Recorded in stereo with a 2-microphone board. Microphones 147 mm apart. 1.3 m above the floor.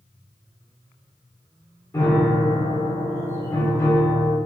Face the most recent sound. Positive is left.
turn(degrees=20)  # may be behind; listen again after turning